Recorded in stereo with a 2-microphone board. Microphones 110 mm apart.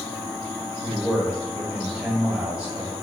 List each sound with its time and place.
0.8 s a man speaking: 10° right (ahead or behind), 1.4 m